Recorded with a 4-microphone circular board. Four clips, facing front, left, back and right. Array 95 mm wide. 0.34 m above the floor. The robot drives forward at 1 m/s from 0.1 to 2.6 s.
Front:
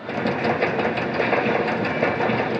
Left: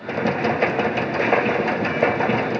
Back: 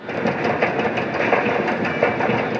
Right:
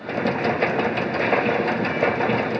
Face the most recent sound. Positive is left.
No sound to turn to.